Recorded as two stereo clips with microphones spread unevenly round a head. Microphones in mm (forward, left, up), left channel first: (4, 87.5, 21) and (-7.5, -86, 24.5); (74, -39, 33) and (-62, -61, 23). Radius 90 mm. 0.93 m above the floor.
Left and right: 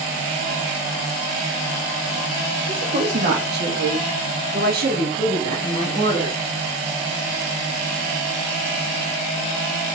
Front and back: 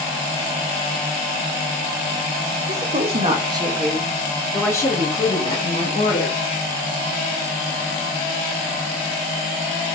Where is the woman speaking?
145° right, 1.5 m; by 6.4 s 35° right, 2.5 m.